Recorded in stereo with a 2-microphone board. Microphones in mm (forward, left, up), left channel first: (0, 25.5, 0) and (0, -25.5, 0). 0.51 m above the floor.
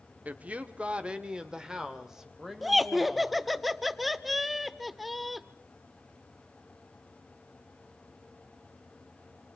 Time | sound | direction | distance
0.2 | a woman speaking | 35° right (ahead or behind) | 1.1 m
2.6 | laughter | centre (ahead or behind) | 1.1 m